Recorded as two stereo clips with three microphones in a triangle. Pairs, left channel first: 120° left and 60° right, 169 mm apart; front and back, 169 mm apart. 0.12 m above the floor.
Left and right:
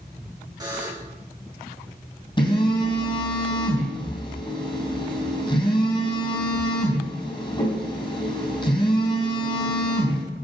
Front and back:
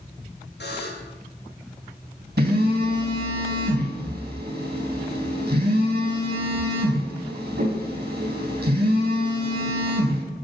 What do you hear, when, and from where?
0.6 s a buzzer: 5° left, 5 m
2.4 s a phone buzzing: straight behind, 3.5 m